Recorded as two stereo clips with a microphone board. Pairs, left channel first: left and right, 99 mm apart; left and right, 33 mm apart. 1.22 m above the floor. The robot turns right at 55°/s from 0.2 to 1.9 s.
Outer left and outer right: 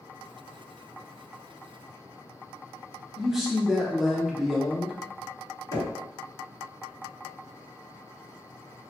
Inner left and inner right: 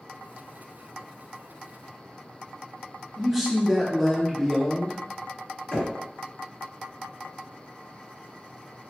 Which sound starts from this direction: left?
Knocking, at 5.7 s.